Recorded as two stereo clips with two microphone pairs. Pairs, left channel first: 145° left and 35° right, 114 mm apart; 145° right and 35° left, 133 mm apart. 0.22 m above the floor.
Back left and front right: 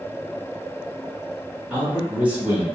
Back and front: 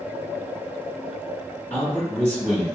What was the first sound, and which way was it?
A man speaking, 100° right.